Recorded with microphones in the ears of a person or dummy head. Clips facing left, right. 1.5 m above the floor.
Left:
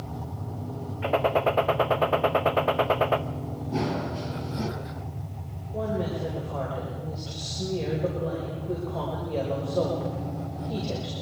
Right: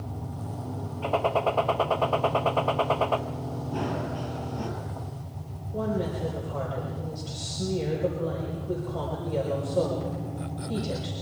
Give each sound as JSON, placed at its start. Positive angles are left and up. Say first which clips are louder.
{"t": 1.0, "sound": "a gunshot", "louder": "left 2 dB", "side_deg": 30, "distance_m": 0.6}
{"t": 3.7, "sound": "running footsteps", "louder": "left 3 dB", "side_deg": 25, "distance_m": 2.0}
{"t": 5.7, "sound": "a woman speaking", "louder": "even", "side_deg": 5, "distance_m": 5.0}